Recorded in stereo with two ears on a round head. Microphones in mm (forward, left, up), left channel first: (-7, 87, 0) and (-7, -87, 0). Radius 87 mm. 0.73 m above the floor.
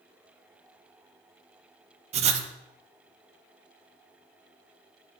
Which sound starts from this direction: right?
Writing, at 2.1 s.